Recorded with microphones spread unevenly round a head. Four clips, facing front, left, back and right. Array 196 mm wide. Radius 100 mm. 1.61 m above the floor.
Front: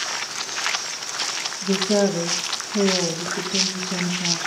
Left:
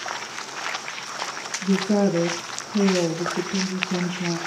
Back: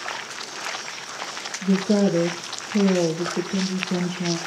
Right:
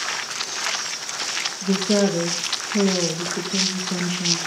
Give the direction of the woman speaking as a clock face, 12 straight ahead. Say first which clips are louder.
Right 1 dB, even; 5 o'clock.